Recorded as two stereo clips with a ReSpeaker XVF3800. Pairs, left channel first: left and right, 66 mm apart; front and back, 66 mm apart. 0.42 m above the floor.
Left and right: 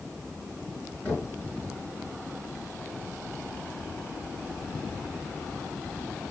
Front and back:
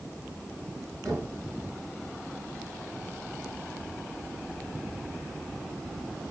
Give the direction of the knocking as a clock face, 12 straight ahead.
7 o'clock.